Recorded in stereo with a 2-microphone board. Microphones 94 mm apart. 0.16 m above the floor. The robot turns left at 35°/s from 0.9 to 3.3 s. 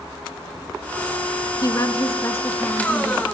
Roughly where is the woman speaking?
Ahead left.